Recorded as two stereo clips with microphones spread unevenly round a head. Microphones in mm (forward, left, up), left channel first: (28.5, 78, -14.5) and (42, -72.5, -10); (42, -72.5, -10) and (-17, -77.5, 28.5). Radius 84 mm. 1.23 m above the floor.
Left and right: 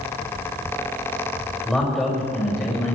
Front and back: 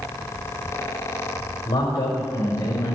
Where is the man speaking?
10° left, 5 m.